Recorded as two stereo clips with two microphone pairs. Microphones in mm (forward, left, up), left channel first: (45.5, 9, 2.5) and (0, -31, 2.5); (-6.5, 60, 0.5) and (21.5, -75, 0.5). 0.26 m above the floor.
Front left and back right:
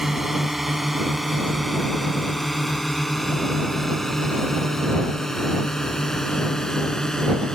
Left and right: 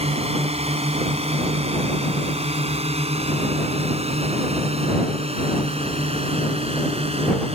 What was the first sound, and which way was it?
A drone, 55° right.